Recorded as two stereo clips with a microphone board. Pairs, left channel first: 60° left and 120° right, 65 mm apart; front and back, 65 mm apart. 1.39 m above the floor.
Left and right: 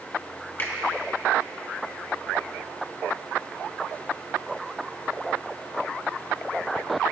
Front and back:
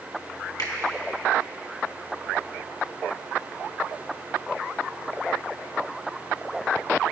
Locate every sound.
0.6 s a finger snap: 5° left, 1.6 m